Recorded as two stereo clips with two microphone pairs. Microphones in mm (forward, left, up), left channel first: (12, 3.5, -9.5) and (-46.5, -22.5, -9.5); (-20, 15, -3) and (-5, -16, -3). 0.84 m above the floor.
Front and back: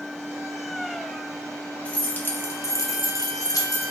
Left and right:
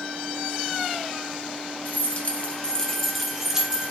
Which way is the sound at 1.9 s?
95° left.